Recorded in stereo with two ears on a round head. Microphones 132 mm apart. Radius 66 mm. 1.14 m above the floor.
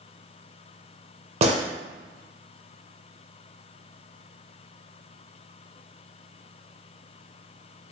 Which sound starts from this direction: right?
A gunshot, at 1.4 s.